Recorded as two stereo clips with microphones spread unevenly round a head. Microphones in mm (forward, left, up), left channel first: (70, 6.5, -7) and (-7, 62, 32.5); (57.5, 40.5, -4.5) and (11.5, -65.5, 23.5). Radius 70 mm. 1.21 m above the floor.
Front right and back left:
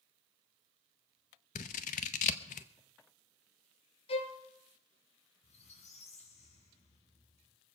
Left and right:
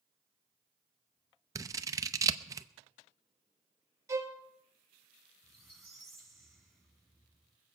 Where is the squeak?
25° right, 4.5 m.